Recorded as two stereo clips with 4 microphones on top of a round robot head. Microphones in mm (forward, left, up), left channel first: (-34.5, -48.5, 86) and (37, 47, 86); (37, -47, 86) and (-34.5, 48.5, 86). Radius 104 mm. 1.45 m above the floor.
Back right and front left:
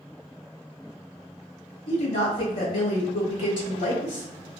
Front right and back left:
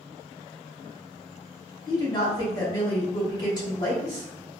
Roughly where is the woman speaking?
Right.